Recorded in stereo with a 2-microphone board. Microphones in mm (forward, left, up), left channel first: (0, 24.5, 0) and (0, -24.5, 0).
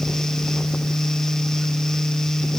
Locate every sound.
Only background noise.